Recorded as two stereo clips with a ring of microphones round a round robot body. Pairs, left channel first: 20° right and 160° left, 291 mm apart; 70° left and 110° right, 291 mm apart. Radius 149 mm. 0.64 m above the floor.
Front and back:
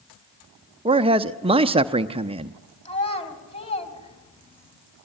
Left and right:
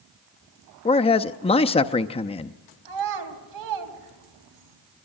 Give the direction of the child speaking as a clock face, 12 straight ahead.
3 o'clock.